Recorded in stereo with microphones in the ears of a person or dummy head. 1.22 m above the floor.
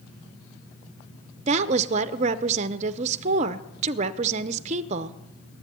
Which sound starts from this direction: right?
A woman speaking, at 1.5 s.